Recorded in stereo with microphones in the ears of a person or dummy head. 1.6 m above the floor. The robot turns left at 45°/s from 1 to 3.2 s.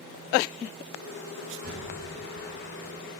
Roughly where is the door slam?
Right.